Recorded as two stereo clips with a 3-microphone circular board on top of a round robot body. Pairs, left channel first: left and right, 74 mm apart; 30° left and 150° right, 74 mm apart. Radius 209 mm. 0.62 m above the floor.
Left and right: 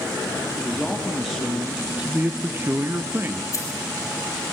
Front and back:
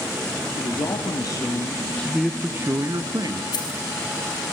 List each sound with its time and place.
0.6 s a man speaking: 5° left, 2.5 m; by 3.4 s 150° right, 2.0 m
3.5 s keys jangling: 45° left, 4 m